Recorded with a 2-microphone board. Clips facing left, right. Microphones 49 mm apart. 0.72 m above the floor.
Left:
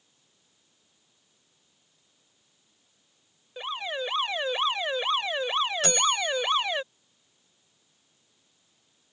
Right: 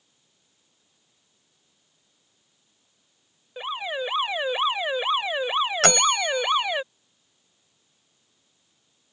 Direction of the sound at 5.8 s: 75° right (ahead or behind).